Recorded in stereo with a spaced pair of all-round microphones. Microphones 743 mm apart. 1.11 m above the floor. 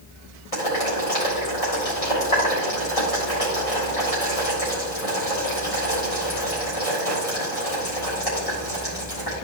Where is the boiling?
50° left (ahead or behind), 3.5 m.